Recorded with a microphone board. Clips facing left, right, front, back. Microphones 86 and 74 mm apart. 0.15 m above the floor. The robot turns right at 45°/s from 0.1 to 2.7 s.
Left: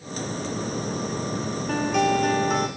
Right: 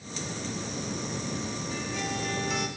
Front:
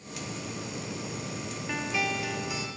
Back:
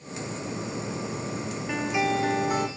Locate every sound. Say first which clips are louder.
1.7 s a guitar: left 15 dB, back 5 dB; 100° left, 1.6 m; by 2.7 s 145° left, 1.6 m